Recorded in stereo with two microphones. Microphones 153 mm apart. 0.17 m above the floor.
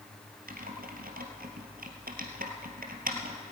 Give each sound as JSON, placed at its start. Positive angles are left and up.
{"t": 0.5, "sound": "typing on a keyboard", "side_deg": -75, "distance_m": 1.9}